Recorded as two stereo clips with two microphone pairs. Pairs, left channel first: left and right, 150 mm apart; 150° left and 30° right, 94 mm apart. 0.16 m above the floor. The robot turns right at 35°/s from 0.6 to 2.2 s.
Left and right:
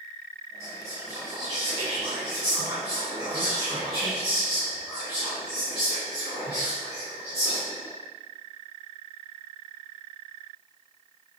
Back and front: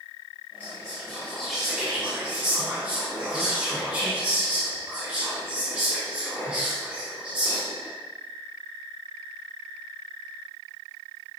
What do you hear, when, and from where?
0.6 s whispering: 150° right, 1.9 m; by 7.9 s 95° right, 1.9 m